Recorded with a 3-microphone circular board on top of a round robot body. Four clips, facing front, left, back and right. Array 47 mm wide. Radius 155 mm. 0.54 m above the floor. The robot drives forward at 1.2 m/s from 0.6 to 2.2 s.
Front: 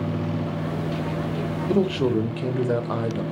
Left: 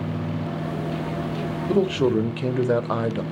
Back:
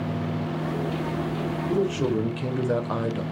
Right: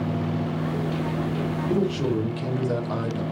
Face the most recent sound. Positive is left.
turn(degrees=90)